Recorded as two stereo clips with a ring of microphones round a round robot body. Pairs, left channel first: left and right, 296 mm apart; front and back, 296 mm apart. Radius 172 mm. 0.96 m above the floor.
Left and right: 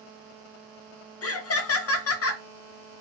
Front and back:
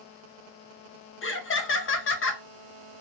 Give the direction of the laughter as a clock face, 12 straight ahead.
10 o'clock.